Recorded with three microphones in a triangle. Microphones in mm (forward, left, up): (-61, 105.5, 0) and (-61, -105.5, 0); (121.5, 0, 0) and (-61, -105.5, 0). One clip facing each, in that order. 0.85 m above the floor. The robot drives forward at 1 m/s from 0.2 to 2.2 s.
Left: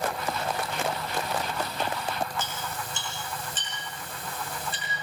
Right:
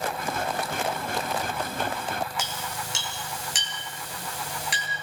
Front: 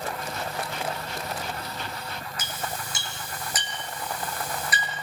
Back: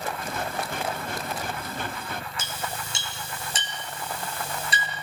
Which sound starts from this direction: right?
A clink, at 2.4 s.